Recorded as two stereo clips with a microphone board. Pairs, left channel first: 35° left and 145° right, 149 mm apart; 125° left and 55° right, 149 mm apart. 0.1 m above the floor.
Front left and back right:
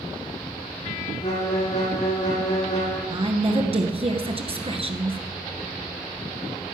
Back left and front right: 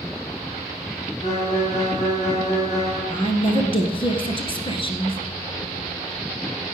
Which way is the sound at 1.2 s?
85° left.